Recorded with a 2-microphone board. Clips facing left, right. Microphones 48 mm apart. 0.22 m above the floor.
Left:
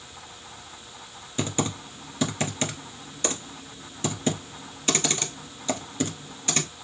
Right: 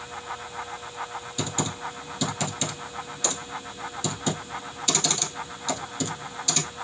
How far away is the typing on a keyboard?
About 1.1 m.